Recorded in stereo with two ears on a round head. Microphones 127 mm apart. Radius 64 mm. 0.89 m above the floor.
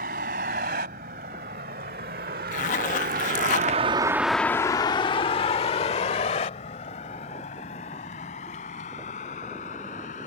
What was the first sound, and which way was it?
A vehicle, 75° right (ahead or behind).